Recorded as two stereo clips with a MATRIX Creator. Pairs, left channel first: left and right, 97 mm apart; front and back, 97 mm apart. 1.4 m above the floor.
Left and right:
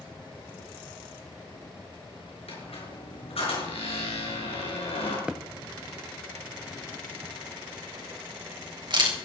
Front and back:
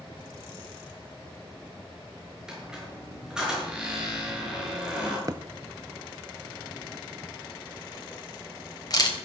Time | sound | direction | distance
2.5 | a squeak | 95° left | 5.5 m
5.3 | a thud | 165° right | 0.8 m
7.2 | a camera shutter | 50° right | 3.5 m